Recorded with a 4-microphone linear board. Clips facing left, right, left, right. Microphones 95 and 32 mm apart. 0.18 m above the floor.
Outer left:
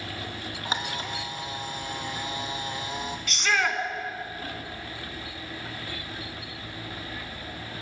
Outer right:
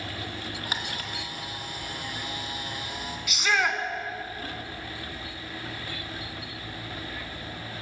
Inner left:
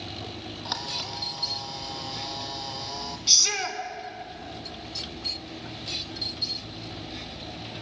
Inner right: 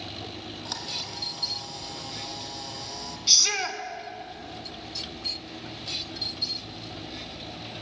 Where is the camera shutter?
25° left (ahead or behind), 1.6 m.